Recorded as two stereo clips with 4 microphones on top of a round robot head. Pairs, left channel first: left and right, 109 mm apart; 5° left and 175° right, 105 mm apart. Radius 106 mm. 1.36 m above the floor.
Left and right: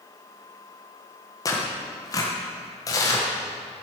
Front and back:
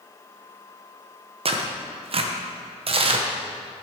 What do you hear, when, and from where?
1.4 s tearing paper: 150° left, 1.1 m